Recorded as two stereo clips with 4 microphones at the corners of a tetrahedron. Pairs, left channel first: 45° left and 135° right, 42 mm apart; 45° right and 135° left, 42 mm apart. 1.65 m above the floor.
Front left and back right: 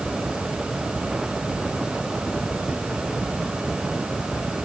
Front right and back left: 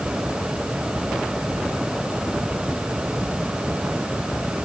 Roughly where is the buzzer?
No buzzer in this recording.